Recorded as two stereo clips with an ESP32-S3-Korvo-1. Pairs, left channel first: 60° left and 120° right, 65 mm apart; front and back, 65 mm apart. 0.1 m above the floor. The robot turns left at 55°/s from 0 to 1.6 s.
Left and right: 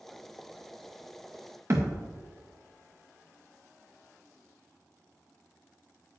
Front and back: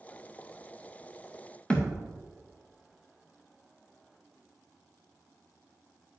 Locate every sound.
1.7 s a thud: 75° right, 2 m